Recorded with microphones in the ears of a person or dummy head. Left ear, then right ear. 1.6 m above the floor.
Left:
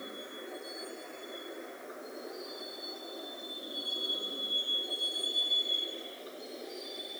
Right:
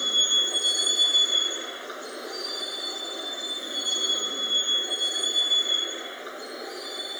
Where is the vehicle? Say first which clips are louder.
Right 22 dB; 80° right; by 7.2 s 50° right (ahead or behind).